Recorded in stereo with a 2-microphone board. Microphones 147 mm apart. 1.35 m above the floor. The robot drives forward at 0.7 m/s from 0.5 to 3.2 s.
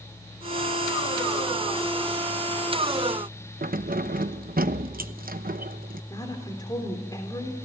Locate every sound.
3.6 s keys jangling: 75° right (ahead or behind), 0.9 m
6.1 s a woman speaking: 25° left (ahead or behind), 3.5 m